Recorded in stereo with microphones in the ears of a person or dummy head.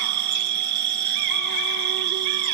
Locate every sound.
0.0 s an insect: 55° right (ahead or behind), 0.9 m